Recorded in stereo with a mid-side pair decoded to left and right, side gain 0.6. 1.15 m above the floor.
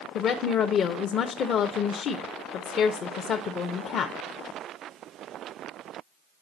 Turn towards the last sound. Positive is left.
turn(degrees=50)